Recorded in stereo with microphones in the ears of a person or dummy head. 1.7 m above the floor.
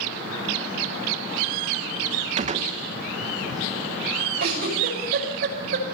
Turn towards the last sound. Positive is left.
turn(degrees=-50)  # may be behind; listen again after turning